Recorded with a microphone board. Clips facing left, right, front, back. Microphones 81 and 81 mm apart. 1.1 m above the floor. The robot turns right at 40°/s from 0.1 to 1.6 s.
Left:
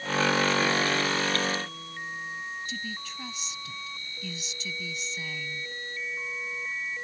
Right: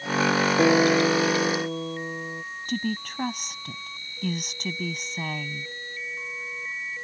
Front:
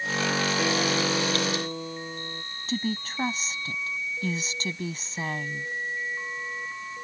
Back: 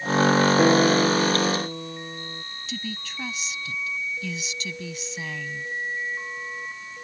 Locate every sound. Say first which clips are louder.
0.6 s a guitar: right 7 dB, back 8 dB; 125° right; by 2.4 s 85° right
2.7 s a woman speaking: right 8 dB, front 6 dB; 50° right